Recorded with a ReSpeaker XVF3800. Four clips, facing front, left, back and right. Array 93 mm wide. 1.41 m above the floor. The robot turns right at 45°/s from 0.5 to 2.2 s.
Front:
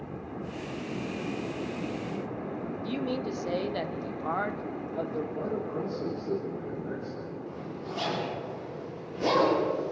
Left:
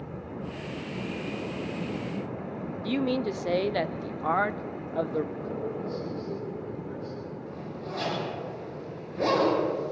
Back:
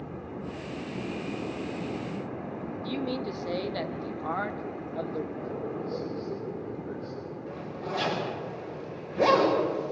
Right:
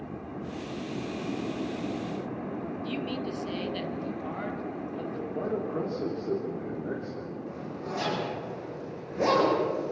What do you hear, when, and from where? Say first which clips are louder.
2.8 s a man speaking: left 9 dB, even; 80° left, 0.9 m
5.3 s a man speaking: right 3 dB, front 2 dB; 75° right, 3.5 m
7.5 s a zipper: right 1 dB, back 2 dB; 165° right, 8 m